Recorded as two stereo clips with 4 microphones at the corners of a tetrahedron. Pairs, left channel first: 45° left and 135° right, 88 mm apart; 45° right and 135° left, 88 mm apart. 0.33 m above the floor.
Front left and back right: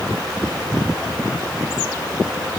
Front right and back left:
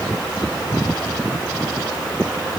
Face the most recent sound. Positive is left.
No sound to turn to.